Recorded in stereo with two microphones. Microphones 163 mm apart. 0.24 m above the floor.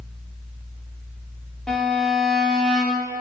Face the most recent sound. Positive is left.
turn(degrees=5)  # may be behind; listen again after turning